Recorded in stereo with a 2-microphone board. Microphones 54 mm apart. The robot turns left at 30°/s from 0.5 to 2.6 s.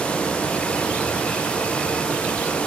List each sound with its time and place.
Only background noise.